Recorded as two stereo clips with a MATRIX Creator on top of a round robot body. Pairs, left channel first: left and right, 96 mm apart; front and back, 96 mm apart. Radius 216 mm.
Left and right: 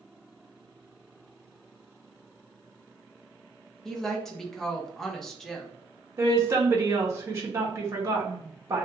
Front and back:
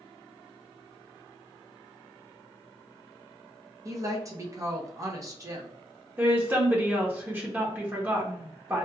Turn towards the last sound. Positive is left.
turn(degrees=-125)